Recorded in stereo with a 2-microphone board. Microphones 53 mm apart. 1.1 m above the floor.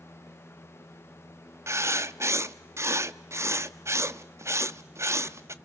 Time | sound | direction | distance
1.7 | writing | 55° right (ahead or behind) | 0.8 m